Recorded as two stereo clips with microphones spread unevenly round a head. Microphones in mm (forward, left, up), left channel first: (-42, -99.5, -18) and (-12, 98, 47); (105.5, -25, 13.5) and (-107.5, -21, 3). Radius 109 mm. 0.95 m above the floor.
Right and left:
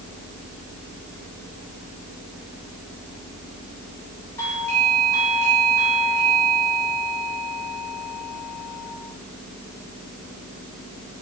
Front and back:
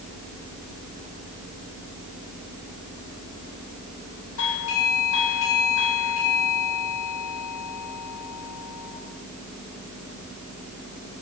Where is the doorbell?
25° right, 6.5 m.